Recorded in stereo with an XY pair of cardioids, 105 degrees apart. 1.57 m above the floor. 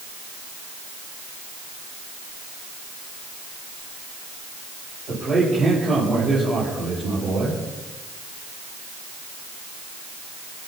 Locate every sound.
5.1 s a man speaking: 55° right, 8.5 m